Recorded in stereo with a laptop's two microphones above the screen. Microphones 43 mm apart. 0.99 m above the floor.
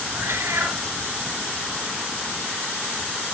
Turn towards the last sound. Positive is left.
turn(degrees=-65)  # may be behind; listen again after turning